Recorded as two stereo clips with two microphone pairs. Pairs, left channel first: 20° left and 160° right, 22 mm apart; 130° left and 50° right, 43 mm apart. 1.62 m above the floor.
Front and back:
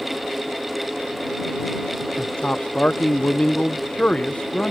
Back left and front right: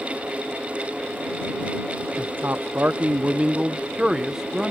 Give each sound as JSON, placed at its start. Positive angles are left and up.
{"t": 2.2, "sound": "a man speaking", "azimuth_deg": -20}